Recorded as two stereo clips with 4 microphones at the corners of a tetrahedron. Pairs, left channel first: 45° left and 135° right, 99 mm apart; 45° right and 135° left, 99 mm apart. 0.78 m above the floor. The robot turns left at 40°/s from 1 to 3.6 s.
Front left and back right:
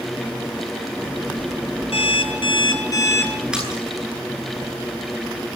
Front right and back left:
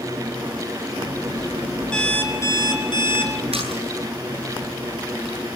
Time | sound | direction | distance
1.9 | an alarm clock | 35° left | 4.5 m
3.5 | a splash | 145° left | 10 m